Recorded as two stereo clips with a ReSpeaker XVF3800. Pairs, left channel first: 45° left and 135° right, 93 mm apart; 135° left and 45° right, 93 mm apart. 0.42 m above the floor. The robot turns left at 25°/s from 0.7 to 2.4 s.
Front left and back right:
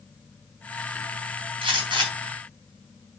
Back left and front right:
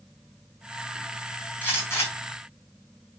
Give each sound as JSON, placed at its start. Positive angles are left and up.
{"t": 1.6, "sound": "a gunshot", "azimuth_deg": -155, "distance_m": 4.5}